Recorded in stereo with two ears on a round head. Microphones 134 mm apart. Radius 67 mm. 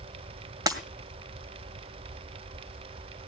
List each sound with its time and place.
0.7 s breaking glass: 25° right (ahead or behind), 1.7 m